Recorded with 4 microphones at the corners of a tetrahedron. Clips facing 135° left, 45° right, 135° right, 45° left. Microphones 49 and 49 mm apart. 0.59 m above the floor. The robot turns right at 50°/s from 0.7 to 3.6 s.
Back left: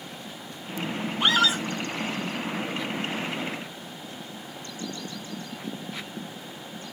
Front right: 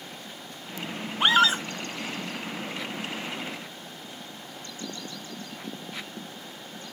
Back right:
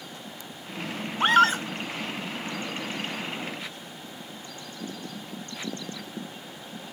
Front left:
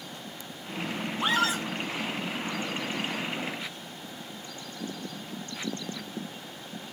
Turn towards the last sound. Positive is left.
turn(degrees=5)